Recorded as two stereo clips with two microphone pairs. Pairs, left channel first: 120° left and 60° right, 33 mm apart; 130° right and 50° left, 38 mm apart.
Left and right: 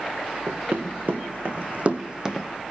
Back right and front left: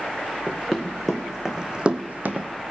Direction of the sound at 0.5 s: 45° right.